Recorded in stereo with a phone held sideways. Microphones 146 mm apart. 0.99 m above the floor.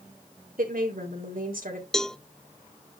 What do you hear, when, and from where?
0.6 s a woman speaking: 75° right (ahead or behind), 3.5 m
1.9 s a cowbell: 5° left (ahead or behind), 0.6 m